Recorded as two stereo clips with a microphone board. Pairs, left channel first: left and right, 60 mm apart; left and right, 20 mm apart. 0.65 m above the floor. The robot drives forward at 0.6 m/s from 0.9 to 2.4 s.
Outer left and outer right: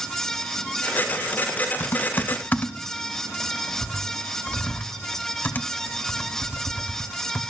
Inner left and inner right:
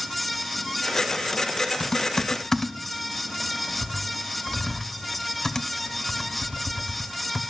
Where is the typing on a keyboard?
50° left (ahead or behind), 0.8 m; by 7.4 s 35° left (ahead or behind), 1.1 m.